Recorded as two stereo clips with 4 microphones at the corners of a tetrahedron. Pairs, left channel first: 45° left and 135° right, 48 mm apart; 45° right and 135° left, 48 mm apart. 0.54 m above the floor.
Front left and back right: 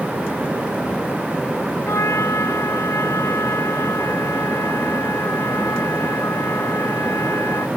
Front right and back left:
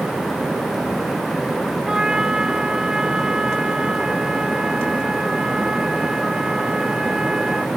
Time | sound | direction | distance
1.9 | a trumpet | 60° left | ?